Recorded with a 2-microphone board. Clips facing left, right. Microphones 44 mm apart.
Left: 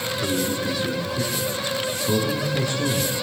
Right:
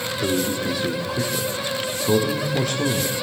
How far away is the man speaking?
About 5 m.